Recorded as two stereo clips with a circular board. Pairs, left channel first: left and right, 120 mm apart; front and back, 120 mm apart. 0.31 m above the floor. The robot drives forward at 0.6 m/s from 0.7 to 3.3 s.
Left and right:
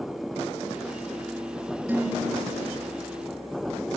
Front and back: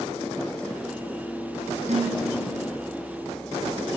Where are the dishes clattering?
165° right, 4.5 m.